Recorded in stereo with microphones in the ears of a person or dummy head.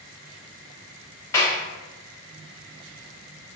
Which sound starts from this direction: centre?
A clap, at 1.3 s.